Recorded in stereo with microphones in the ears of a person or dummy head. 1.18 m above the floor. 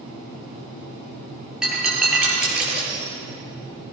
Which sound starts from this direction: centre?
Breaking glass, at 1.6 s.